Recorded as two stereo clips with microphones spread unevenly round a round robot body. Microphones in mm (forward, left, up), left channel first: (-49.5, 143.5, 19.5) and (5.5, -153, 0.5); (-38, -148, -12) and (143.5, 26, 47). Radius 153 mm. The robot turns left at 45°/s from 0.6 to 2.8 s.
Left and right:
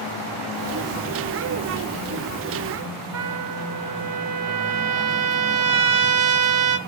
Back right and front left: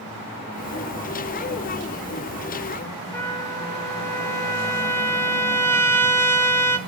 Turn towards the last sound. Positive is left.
turn(degrees=-70)